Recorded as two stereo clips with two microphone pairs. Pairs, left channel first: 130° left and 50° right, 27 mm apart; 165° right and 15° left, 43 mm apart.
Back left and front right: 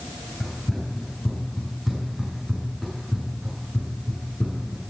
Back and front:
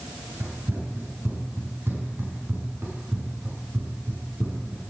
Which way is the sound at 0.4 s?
35° left.